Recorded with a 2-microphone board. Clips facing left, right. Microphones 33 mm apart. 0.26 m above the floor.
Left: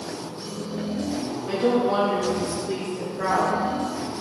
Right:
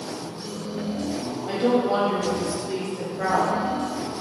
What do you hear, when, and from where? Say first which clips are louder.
1.5 s a woman speaking: even; 20° right (ahead or behind), 1.3 m